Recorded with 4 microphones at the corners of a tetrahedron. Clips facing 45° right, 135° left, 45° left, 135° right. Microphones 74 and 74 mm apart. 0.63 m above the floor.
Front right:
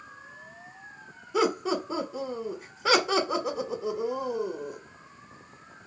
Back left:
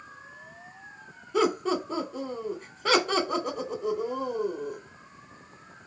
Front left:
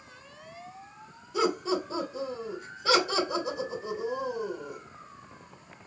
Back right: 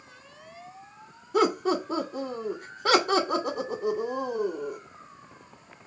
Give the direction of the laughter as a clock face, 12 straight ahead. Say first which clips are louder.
Back left 1 dB, back right 4 dB; 4 o'clock.